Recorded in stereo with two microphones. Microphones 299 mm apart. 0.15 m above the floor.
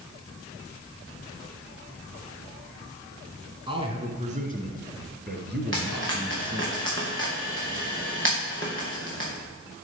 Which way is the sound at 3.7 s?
15° right (ahead or behind).